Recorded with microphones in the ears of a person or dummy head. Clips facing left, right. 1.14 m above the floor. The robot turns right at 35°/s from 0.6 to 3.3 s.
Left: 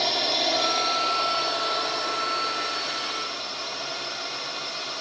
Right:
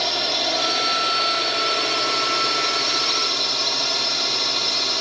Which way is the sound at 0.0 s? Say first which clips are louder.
Right 1 dB; straight behind.